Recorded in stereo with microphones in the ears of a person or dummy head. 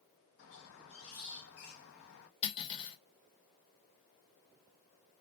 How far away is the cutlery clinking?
About 1.0 m.